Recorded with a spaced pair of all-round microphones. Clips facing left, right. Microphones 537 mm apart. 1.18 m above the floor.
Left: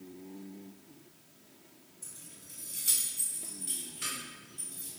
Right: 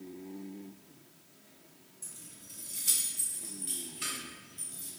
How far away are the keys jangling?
About 0.9 m.